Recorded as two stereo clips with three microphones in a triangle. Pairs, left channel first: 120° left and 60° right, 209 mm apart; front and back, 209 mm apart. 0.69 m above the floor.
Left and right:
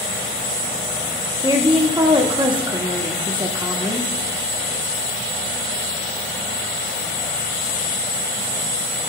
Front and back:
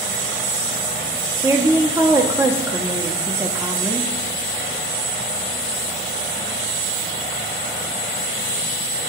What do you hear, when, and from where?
1.4 s a woman speaking: 110° right, 1.3 m